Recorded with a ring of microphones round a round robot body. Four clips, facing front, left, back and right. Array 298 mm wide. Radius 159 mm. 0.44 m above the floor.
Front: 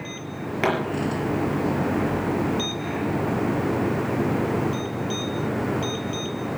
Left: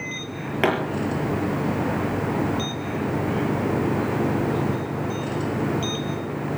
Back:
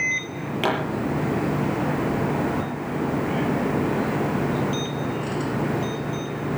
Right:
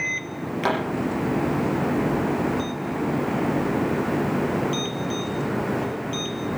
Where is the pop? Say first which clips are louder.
Left 2 dB, front 1 dB; 75° left, 5.5 m.